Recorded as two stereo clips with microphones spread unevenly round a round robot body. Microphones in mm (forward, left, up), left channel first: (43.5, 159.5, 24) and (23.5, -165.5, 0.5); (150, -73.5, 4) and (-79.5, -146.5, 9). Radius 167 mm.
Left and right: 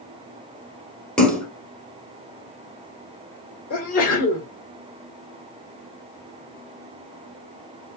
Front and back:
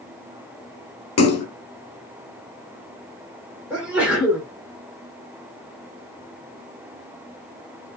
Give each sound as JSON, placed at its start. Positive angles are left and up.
{"t": 1.2, "sound": "a splash", "azimuth_deg": 0, "distance_m": 1.5}
{"t": 3.7, "sound": "a sneeze", "azimuth_deg": 115, "distance_m": 1.5}